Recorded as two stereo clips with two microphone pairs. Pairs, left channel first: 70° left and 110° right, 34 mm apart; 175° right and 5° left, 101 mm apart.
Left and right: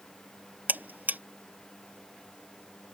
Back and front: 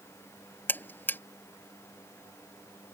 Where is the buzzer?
110° right.